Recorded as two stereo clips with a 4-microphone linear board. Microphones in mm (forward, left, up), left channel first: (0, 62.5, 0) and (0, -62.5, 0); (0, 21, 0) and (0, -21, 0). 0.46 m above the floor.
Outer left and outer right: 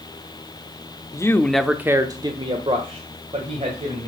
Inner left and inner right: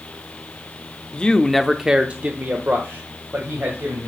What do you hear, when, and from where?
1.1 s a man speaking: 25° left (ahead or behind), 0.8 m; by 4.1 s 50° right (ahead or behind), 2.5 m